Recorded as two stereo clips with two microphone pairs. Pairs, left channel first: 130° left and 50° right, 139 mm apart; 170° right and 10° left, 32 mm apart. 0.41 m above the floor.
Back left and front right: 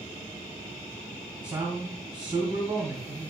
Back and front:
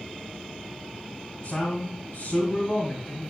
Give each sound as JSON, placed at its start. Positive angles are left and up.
{"t": 1.4, "sound": "a man speaking", "azimuth_deg": -105, "distance_m": 2.5}